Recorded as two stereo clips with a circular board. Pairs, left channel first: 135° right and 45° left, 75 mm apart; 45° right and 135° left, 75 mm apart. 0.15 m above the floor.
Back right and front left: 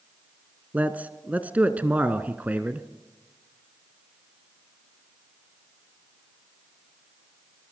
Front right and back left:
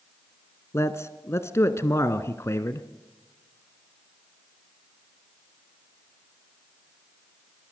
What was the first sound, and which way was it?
A man speaking, 15° right.